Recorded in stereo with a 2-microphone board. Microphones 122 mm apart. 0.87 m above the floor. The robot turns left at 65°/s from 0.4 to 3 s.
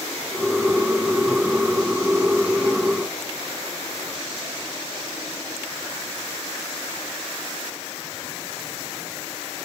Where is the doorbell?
No doorbell in this recording.